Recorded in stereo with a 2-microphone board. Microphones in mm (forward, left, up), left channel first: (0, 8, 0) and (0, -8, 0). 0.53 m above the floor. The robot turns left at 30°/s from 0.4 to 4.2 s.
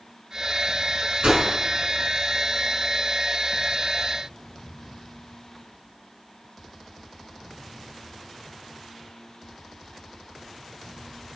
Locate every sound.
1.2 s a whoosh: 75° right (ahead or behind), 4 m; by 1.4 s 70° right (ahead or behind), 4 m